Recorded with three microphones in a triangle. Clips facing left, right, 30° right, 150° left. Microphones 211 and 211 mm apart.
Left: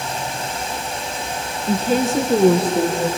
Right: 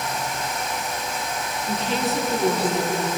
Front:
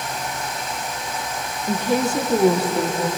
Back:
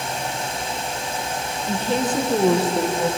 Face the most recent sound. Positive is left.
turn(degrees=65)